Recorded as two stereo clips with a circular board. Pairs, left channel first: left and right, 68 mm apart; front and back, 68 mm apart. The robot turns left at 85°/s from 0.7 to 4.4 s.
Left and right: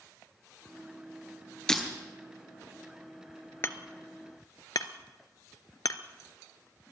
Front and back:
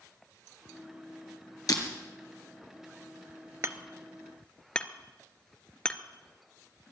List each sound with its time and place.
1.7 s breaking glass: 10° left, 1.9 m; by 1.8 s straight ahead, 1.9 m
3.6 s hammering: 140° left, 0.7 m; by 6.0 s 75° left, 0.7 m